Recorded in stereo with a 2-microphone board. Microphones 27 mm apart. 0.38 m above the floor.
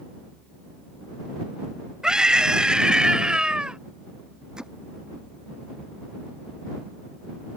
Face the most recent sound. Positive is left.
turn(degrees=-30)  # may be behind; listen again after turning